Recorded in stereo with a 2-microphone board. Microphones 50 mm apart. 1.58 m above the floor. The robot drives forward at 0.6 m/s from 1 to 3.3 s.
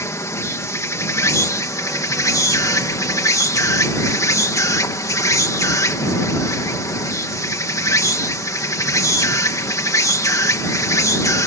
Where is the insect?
65° left (ahead or behind); by 11.5 s 80° left.